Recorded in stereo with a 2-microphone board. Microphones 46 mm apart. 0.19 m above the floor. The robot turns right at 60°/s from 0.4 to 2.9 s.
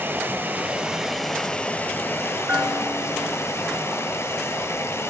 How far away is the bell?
About 1.3 m.